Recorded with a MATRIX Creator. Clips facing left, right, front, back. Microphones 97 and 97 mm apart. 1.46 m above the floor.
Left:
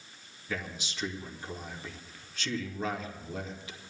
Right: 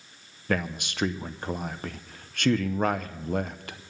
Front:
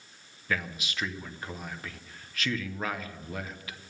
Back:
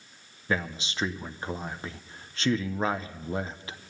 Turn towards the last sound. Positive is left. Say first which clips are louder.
# right 9 dB, back 3 dB
turn(degrees=-120)